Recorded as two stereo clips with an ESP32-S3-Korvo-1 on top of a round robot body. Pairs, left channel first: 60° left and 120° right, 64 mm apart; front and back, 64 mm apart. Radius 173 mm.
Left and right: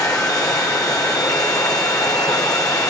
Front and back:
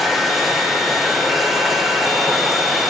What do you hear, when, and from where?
0.0 s running water: 95° left, 1.3 m